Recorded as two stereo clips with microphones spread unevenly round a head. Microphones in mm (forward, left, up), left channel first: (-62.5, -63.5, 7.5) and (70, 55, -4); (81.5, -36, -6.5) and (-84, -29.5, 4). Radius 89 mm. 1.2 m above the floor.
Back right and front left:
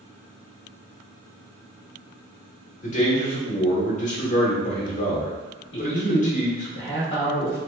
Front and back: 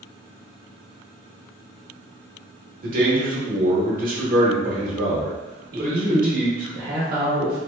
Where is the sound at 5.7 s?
155° right, 0.8 m.